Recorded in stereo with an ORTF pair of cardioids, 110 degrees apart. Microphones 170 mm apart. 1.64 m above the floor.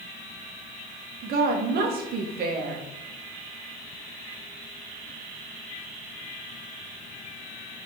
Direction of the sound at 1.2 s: 70° right.